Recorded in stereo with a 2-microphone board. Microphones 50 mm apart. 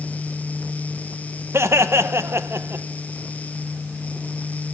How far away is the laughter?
About 1.5 m.